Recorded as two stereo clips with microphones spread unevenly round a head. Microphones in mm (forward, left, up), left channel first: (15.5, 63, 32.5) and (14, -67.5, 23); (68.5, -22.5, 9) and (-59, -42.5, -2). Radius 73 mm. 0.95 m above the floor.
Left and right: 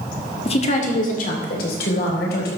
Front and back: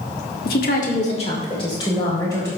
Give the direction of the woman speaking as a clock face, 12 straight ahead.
11 o'clock.